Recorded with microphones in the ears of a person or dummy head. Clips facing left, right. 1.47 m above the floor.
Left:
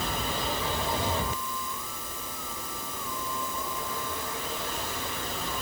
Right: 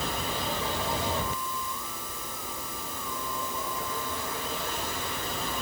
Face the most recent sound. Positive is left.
No sound to turn to.